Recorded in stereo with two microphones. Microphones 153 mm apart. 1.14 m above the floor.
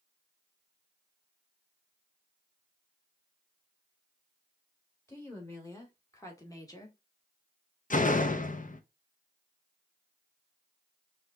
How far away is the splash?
I don't hear a splash.